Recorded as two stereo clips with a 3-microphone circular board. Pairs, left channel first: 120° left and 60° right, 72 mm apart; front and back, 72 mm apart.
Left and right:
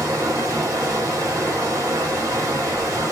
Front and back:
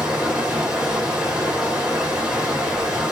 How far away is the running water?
About 1.4 m.